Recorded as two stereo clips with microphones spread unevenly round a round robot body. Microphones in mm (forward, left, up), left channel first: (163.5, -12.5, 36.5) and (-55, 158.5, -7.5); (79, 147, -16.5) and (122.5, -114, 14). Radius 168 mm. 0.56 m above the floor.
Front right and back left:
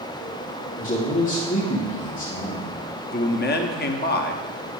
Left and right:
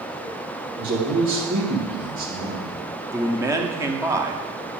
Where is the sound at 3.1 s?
Straight ahead, 0.8 m.